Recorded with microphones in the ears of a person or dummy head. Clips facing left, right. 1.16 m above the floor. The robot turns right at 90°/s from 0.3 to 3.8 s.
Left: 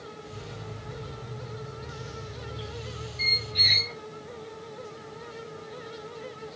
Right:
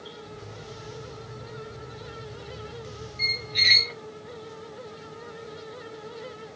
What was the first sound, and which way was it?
A squeak, 175° left.